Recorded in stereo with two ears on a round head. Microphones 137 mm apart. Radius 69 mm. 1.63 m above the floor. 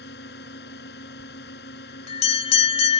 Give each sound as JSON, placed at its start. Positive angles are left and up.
{"t": 0.0, "sound": "a drone", "side_deg": 75}
{"t": 1.2, "sound": "a bell", "side_deg": 40}